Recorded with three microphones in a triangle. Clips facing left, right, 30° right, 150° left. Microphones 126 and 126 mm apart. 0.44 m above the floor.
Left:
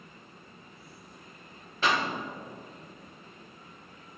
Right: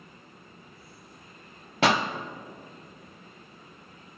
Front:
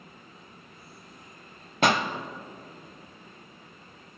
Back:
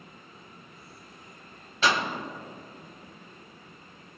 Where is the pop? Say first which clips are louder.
Right 4 dB, front 3 dB; 70° right, 0.7 m.